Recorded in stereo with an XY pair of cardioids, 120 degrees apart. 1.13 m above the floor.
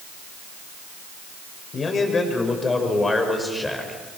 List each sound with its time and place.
1.7 s a man speaking: 35° left, 5.5 m; by 4.0 s 10° left, 5 m